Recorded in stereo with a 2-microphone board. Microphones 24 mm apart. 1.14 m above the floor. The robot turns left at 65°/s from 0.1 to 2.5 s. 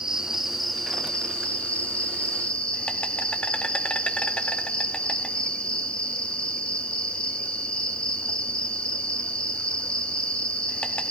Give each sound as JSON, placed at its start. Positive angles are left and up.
{"t": 0.0, "sound": "an insect", "azimuth_deg": -150, "distance_m": 1.1}